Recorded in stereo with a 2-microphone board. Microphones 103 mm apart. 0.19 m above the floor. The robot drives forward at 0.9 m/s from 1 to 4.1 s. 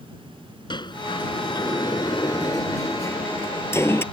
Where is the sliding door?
50° left (ahead or behind); by 4.0 s 25° left (ahead or behind).